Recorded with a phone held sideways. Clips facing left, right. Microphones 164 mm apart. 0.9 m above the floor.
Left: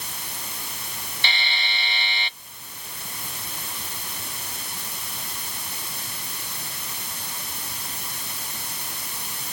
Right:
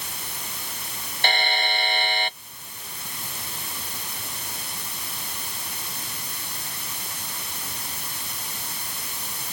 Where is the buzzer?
50° right (ahead or behind).